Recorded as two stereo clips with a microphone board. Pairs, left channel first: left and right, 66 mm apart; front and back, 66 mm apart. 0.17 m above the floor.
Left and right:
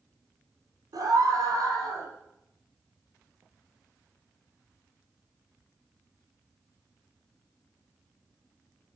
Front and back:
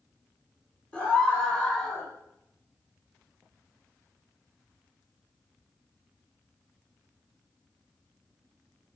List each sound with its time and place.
0.9 s a scream: 65° right, 4.5 m; by 2.1 s 75° right, 6 m